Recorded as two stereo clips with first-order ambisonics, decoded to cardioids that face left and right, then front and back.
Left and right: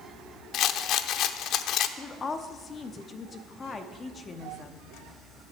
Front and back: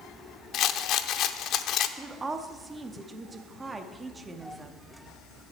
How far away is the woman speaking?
About 0.7 m.